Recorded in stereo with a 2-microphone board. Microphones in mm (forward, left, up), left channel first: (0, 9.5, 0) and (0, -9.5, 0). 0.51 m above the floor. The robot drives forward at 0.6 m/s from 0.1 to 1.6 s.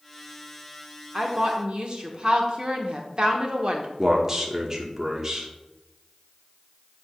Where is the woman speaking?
40° right (ahead or behind), 0.9 m; by 3.9 s 45° right (ahead or behind), 0.9 m.